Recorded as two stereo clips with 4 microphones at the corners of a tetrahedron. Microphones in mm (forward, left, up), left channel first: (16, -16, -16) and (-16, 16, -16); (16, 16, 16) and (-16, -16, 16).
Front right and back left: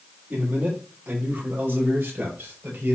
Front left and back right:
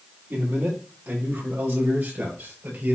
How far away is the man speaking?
About 7 m.